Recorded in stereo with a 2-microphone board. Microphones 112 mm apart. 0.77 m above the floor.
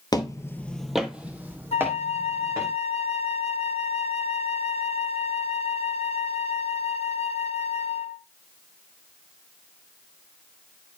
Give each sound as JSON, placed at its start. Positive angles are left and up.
{"t": 0.1, "sound": "footsteps", "side_deg": 35, "distance_m": 0.9}
{"t": 1.7, "sound": "a flute", "side_deg": 65, "distance_m": 0.6}